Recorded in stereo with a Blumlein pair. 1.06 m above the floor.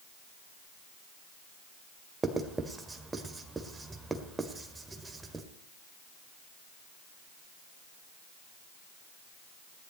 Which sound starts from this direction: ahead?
Writing, at 2.2 s.